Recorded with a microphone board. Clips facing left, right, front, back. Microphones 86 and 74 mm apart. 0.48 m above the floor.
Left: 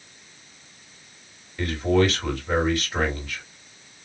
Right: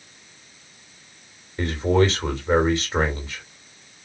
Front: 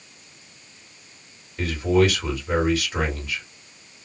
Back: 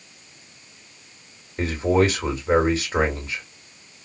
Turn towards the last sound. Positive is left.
turn(degrees=-135)